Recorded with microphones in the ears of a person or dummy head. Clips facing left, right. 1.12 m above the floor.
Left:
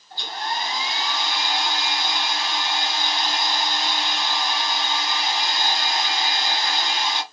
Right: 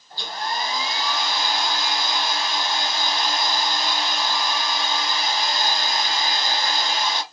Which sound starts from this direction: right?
A hair dryer, at 0.1 s.